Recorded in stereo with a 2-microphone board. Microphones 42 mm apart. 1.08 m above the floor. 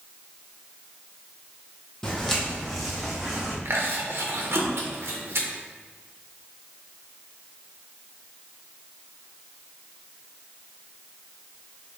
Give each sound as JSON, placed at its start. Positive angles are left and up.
{"t": 2.0, "sound": "footsteps", "side_deg": 10, "distance_m": 2.0}
{"t": 3.6, "sound": "chewing", "side_deg": -70, "distance_m": 1.4}